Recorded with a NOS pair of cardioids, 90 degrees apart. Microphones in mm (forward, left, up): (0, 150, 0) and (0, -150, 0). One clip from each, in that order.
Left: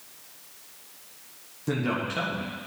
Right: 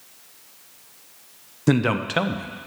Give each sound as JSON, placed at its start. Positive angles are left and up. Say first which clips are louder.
{"t": 1.7, "sound": "a man speaking", "louder": "right 7 dB", "azimuth_deg": -65, "distance_m": 0.9}